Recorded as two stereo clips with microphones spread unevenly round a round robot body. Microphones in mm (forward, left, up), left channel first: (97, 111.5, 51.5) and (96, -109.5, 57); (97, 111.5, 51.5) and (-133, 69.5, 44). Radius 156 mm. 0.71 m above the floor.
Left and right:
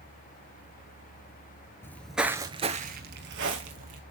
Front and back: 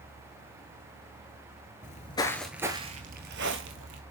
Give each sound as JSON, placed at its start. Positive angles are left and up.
{"t": 1.8, "sound": "footsteps", "azimuth_deg": 15, "distance_m": 0.7}